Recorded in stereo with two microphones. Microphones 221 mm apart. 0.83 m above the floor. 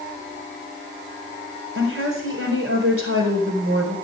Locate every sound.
1.8 s a woman speaking: 80° right, 4 m